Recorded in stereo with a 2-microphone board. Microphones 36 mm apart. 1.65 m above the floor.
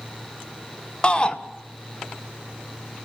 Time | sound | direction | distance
1.0 | a shout | 25° left (ahead or behind) | 1.7 m